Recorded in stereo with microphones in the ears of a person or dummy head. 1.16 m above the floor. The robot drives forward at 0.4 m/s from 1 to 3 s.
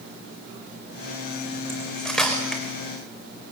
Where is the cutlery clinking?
5° left (ahead or behind), 3 m.